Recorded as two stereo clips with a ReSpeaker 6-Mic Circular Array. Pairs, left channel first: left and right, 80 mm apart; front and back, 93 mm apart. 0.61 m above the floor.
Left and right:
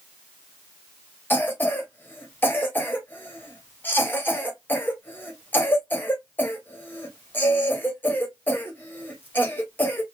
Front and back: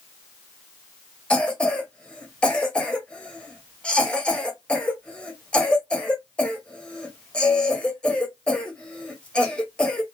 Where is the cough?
65° left, 1.0 m.